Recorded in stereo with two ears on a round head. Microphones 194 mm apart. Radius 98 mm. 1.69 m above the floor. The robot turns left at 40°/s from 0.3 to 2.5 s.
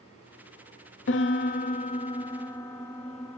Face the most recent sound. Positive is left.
turn(degrees=10)